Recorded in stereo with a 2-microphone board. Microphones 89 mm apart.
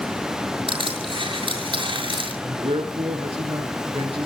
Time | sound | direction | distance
0.7 | crushing | 70° right (ahead or behind) | 6.5 m
2.4 | a man speaking | 75° right (ahead or behind) | 5.5 m